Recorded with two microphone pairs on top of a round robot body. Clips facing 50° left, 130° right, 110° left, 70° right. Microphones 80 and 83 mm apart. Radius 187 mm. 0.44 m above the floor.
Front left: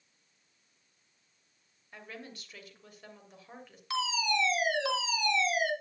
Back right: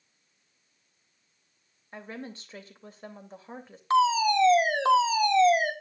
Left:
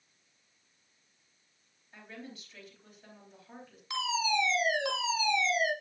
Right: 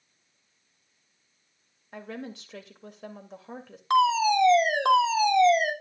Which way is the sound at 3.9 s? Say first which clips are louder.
Back right 10 dB, right 10 dB; 90° right.